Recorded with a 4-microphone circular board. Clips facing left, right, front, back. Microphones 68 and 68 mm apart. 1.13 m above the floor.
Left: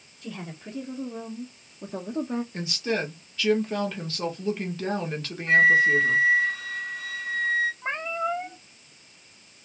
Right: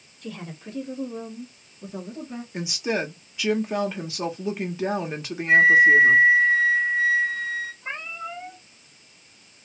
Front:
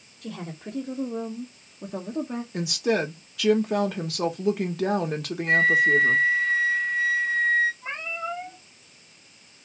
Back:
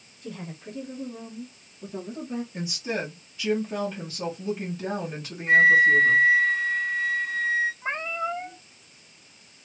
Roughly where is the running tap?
No running tap in this recording.